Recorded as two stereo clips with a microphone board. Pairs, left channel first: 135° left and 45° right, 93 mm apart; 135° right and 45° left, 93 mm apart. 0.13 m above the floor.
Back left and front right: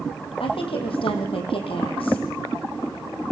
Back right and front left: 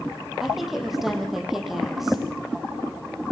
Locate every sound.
0.4 s a woman speaking: 130° left, 6 m